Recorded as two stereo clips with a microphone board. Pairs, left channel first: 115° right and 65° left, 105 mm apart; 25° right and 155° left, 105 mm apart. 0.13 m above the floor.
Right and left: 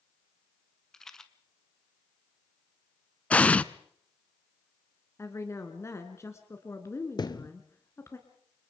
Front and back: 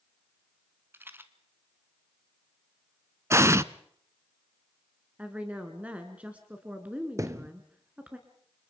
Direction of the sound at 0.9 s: 170° left.